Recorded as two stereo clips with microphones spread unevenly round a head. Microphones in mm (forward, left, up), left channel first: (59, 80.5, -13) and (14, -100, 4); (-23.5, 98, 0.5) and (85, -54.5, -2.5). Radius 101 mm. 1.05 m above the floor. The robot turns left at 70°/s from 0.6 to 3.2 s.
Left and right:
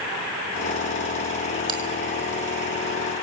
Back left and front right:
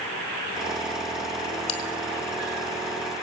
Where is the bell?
175° right, 3 m; by 1.8 s straight behind, 3 m.